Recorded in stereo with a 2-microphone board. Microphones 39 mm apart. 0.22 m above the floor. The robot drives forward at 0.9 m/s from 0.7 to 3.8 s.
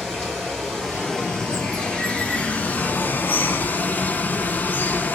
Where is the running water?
15° left (ahead or behind), 2.5 m; by 5.2 s 50° left (ahead or behind), 0.8 m.